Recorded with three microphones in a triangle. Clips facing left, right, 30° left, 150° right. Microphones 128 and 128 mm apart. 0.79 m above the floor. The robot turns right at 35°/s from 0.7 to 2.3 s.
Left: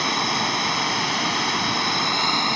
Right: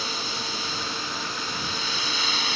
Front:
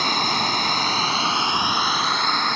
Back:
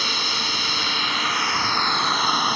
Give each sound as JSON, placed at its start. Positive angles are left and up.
{"t": 0.0, "sound": "running water", "azimuth_deg": 70}